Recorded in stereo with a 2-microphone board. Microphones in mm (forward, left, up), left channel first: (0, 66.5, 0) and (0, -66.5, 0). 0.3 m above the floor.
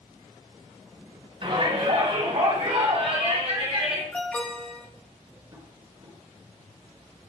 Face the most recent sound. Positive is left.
turn(degrees=-30)  # may be behind; listen again after turning